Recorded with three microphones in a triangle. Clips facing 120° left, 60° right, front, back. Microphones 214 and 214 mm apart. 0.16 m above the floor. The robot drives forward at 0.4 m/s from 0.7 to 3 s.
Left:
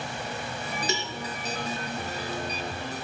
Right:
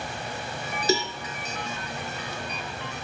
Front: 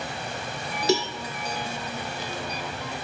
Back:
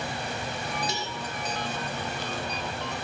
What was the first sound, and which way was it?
A cowbell, 5° right.